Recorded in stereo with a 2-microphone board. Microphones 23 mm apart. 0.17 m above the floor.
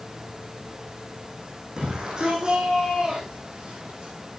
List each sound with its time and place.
1.8 s a shout: 35° right (ahead or behind), 6.5 m; by 4.1 s 45° right (ahead or behind), 6.5 m